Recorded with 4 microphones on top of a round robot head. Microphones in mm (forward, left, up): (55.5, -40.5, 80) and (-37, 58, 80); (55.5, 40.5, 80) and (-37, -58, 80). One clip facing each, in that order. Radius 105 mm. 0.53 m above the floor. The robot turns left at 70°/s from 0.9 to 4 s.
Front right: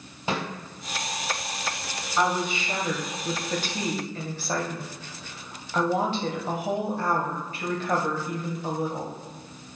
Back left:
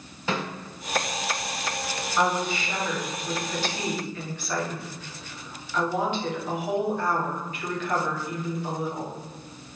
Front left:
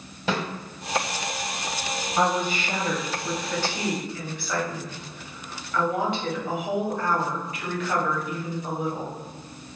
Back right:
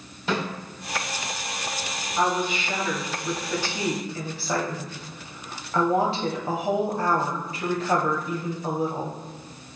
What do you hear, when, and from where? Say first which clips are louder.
0.3 s a snare drum: even, even; 30° left, 1.5 m
2.2 s a woman speaking: even, even; 40° left, 0.8 m; by 9.1 s 90° right, 0.8 m